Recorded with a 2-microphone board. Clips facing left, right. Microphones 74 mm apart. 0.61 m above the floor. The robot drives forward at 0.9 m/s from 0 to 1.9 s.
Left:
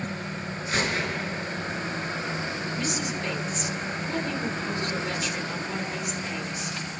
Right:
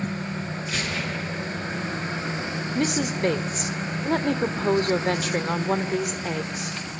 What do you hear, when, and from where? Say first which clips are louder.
0.7 s a gunshot: left 4 dB; 35° left (ahead or behind), 4 m; by 1.4 s 30° left (ahead or behind), 4.5 m
2.8 s a woman speaking: right 9 dB; 55° right (ahead or behind), 2.0 m